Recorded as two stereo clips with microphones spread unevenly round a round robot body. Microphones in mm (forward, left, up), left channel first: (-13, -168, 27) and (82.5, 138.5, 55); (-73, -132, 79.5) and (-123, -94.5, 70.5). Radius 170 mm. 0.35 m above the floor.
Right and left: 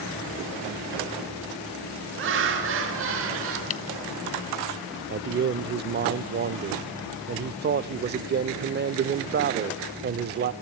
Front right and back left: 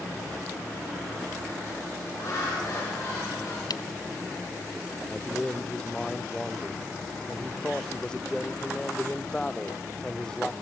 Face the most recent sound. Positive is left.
turn(degrees=45)